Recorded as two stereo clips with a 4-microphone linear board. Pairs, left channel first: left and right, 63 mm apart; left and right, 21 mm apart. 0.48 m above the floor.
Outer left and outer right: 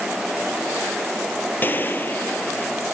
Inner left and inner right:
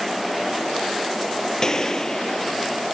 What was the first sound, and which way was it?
A gunshot, 30° left (ahead or behind).